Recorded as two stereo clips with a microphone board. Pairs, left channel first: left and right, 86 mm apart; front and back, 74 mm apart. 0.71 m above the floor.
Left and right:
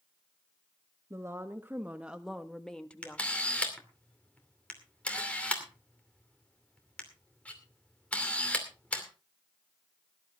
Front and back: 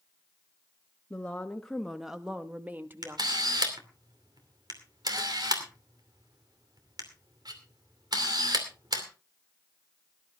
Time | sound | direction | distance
1.1 | a woman speaking | 60° right | 1.2 m
3.0 | a camera shutter | 165° left | 2.5 m